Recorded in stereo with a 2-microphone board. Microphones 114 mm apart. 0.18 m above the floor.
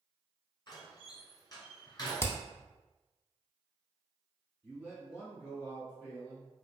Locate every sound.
0.7 s a door slam: 40° left (ahead or behind), 1.3 m
2.2 s hammering: 25° left (ahead or behind), 0.6 m
4.6 s a man speaking: 5° right (ahead or behind), 1.5 m